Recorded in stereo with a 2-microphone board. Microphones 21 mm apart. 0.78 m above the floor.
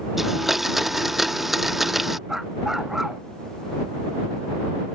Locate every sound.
0.2 s a blender: 15° right (ahead or behind)
2.3 s a dog barking: 20° right (ahead or behind)